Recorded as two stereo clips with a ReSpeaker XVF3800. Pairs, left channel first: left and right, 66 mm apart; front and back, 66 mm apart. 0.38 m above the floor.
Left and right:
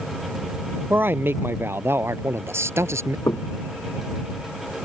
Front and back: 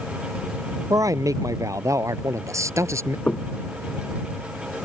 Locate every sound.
0.9 s a man speaking: 150° right; by 3.2 s 135° right
3.3 s knocking: 65° left